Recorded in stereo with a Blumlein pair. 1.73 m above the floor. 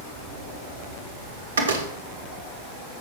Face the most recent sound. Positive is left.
turn(degrees=-65)